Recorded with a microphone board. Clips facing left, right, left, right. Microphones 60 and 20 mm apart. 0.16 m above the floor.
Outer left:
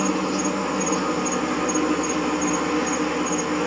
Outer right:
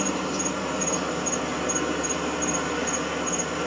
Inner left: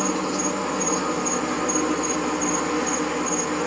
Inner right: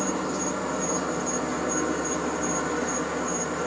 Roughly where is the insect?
Left.